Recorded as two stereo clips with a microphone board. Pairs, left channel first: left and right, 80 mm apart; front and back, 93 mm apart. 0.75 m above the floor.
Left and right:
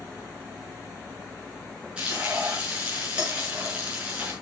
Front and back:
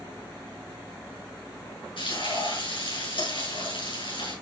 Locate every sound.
2.0 s frying: 15° right, 6 m